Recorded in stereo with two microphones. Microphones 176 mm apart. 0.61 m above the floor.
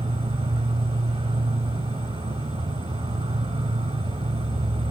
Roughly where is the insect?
Right.